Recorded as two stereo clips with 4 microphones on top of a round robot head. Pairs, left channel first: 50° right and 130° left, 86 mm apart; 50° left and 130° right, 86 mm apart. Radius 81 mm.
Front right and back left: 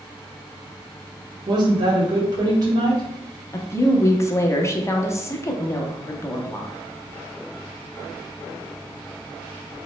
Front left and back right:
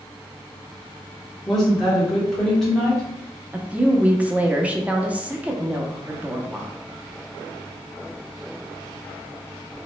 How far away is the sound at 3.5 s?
About 0.9 m.